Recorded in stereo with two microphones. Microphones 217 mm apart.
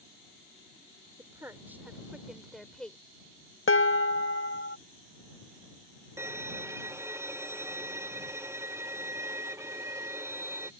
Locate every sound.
1.2 s a woman speaking: 15° right (ahead or behind); by 3.0 s 5° left (ahead or behind)
3.7 s dishes clattering: 75° left (ahead or behind)
6.2 s a violin: 15° right (ahead or behind)